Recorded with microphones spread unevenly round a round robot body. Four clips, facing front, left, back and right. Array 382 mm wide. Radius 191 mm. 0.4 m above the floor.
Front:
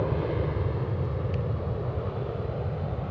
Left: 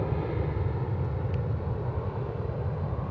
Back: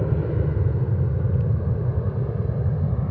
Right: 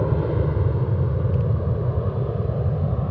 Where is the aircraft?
135° right; by 3.1 s 140° right.